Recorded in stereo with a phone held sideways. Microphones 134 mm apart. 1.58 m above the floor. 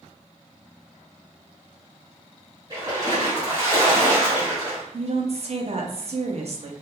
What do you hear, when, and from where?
2.7 s a splash: 30° right (ahead or behind), 1.9 m
4.9 s a woman speaking: 50° right (ahead or behind), 0.6 m